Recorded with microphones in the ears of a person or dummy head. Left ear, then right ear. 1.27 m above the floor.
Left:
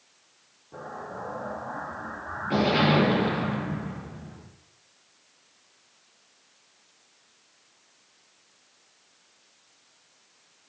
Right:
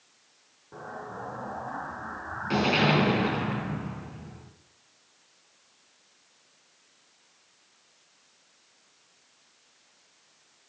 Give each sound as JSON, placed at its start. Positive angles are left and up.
{"t": 0.7, "sound": "an explosion", "side_deg": -40, "distance_m": 7.0}